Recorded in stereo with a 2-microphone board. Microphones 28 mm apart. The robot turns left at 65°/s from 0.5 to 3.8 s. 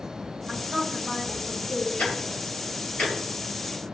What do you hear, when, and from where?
0.5 s a woman speaking: 130° right, 2 m; by 1.9 s 140° left, 2 m
2.0 s ticking: 70° left (ahead or behind), 1.7 m; by 3.9 s 10° right (ahead or behind), 1.7 m